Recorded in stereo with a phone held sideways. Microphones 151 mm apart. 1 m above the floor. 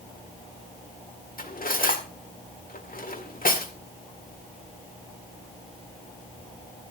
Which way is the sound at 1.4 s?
70° left (ahead or behind).